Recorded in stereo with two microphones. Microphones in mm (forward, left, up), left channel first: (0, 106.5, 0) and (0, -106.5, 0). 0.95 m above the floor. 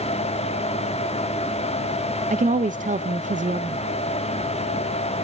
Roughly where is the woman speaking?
Right.